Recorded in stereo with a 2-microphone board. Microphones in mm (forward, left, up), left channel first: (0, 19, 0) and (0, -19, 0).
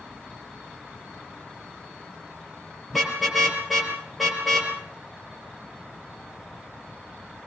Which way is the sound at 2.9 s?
Centre (ahead or behind).